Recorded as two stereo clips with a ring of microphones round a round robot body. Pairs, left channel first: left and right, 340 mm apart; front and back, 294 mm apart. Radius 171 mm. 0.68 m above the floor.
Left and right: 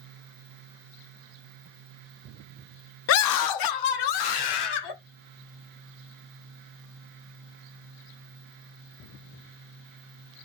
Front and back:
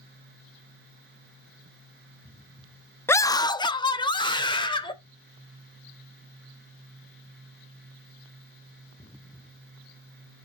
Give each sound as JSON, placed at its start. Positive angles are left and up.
{"t": 3.1, "sound": "a scream", "azimuth_deg": 80, "distance_m": 0.5}